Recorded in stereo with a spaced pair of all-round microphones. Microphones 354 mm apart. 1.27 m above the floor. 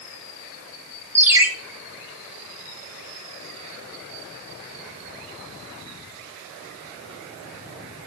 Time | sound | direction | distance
1.1 | a ringtone | 5° right (ahead or behind) | 1.5 m